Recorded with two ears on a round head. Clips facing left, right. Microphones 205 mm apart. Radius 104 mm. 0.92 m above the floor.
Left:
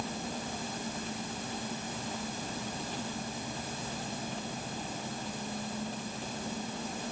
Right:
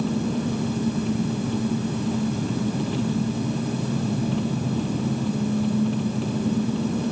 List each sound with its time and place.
0.0 s an engine running: 60° right (ahead or behind)